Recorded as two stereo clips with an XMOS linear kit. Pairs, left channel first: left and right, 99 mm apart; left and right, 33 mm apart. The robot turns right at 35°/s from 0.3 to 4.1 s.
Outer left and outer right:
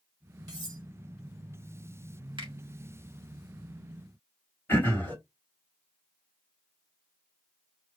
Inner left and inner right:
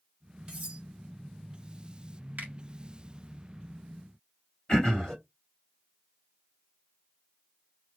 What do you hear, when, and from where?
0.5 s cutlery clinking: 40° right (ahead or behind), 1.7 m; by 0.8 s 50° right (ahead or behind), 1.7 m
2.4 s a finger snap: 55° right (ahead or behind), 2.5 m; by 2.5 s 50° right (ahead or behind), 2.5 m
4.7 s throat clearing: 20° left (ahead or behind), 2 m